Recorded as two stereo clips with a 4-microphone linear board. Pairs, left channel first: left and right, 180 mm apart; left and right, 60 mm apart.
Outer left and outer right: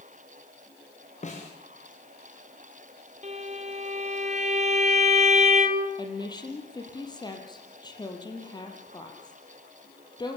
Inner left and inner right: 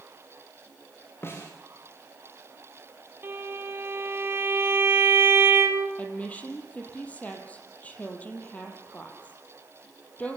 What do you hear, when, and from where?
1.2 s a snare drum: 40° left (ahead or behind), 6 m
3.2 s a violin: 40° right (ahead or behind), 2.5 m
6.0 s a woman speaking: 25° left (ahead or behind), 4.5 m